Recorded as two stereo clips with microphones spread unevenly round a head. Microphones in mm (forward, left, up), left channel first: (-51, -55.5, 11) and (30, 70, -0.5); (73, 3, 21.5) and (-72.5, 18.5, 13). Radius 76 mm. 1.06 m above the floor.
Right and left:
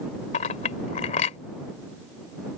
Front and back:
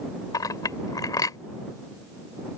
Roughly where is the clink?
Right.